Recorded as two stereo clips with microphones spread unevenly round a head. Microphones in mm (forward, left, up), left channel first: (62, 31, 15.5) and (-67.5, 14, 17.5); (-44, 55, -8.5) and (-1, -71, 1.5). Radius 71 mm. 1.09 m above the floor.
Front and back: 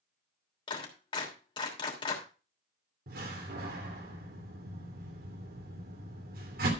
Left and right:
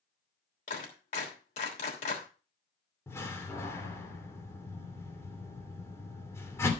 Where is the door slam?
Straight behind, 2.5 m.